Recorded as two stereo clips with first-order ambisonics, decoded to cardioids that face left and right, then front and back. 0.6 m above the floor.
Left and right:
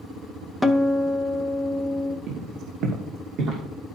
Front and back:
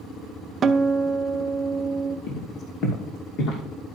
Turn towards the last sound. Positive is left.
turn(degrees=-50)